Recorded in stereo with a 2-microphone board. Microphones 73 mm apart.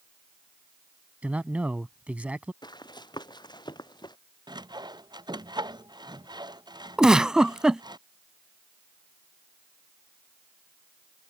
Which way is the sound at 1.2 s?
20° right (ahead or behind).